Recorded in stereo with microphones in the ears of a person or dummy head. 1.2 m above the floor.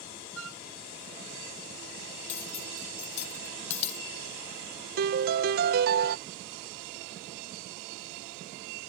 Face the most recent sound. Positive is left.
turn(degrees=-50)  # may be behind; listen again after turning